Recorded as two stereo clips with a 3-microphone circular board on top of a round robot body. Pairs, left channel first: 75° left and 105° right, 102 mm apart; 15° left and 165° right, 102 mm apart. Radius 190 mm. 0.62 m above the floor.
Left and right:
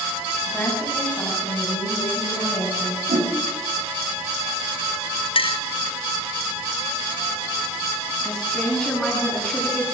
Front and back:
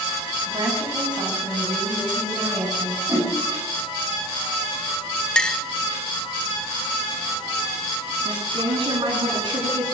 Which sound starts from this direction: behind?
A woman speaking, at 8.2 s.